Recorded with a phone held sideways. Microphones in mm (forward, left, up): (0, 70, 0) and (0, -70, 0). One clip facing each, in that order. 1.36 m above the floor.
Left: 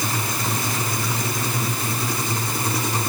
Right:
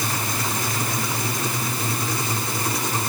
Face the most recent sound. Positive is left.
No sound to turn to.